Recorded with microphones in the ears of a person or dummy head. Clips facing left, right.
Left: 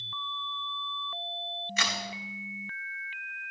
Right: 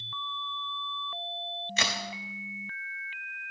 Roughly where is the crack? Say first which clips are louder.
Right 2 dB; right.